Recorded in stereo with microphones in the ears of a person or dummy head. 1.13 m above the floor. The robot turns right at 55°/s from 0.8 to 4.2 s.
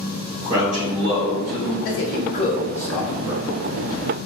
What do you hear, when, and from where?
0.4 s a man speaking: 65° right, 0.8 m; by 1.8 s 10° right, 0.8 m
1.9 s a man speaking: 70° left (ahead or behind), 0.5 m; by 3.4 s 20° right (ahead or behind), 0.5 m